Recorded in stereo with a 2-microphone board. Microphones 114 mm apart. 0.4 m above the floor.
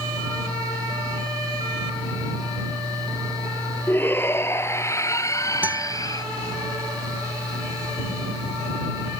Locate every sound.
3.9 s a shout: 20° left (ahead or behind); by 6.2 s 30° left (ahead or behind)
5.6 s a guitar: 15° right (ahead or behind)